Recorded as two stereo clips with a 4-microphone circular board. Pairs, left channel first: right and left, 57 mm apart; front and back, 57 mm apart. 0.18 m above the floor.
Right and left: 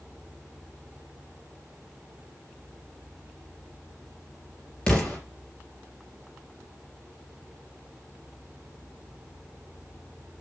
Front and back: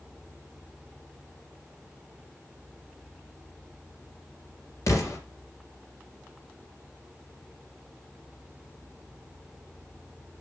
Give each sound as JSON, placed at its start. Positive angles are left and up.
{"t": 4.9, "sound": "an explosion", "azimuth_deg": -15, "distance_m": 3.5}